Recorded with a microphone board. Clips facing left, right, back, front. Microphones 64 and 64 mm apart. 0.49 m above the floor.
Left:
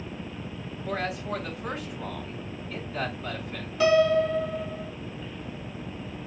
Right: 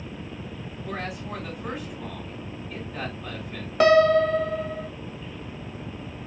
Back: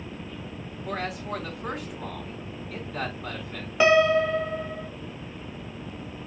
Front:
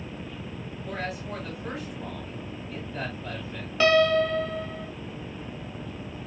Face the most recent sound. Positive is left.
turn(degrees=-110)